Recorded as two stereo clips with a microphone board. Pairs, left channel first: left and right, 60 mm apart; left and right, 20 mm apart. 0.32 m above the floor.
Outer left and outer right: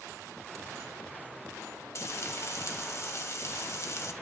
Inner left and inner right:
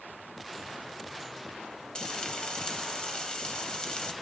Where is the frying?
50° left (ahead or behind), 1.4 m.